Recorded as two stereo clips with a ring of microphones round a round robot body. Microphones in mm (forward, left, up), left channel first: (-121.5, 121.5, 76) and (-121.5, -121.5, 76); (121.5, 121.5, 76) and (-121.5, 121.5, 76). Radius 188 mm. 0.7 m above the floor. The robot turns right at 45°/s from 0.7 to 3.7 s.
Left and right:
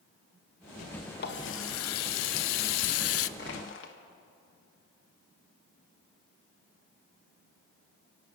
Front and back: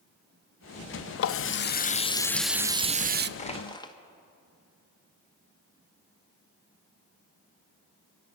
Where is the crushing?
55° left, 1.2 m; by 4.0 s 70° left, 1.2 m.